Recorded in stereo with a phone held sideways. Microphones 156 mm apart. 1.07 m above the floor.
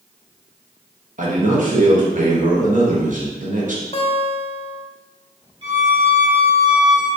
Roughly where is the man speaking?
Right.